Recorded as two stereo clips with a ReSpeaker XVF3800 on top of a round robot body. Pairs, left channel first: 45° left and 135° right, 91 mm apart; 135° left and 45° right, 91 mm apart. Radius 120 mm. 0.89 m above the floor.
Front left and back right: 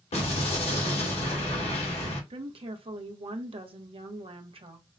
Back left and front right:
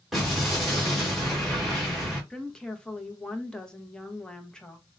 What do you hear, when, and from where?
0.1 s an explosion: 45° left, 1.3 m
2.3 s a woman speaking: 145° right, 0.9 m